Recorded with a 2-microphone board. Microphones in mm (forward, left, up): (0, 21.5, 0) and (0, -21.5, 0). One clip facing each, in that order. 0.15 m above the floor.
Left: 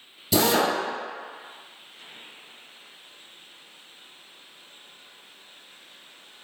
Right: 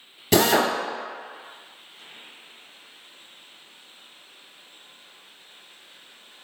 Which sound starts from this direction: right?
A drill, at 0.3 s.